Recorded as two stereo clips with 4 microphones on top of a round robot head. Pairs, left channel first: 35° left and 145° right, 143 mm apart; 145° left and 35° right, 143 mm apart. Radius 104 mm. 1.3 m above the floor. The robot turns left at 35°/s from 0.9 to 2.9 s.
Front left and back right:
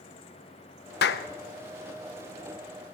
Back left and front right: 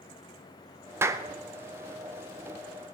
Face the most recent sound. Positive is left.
turn(degrees=-30)